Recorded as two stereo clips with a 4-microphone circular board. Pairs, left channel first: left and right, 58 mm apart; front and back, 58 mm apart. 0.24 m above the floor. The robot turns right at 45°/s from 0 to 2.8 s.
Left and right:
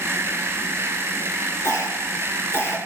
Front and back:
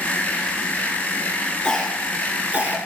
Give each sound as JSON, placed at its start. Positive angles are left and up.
{"t": 1.6, "sound": "a cough", "azimuth_deg": 75, "distance_m": 3.5}